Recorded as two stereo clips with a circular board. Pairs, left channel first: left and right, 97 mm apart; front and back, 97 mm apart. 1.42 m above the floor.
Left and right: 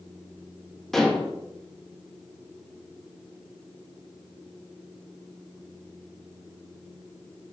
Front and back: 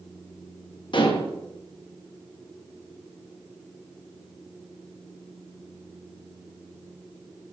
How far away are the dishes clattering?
About 1.0 m.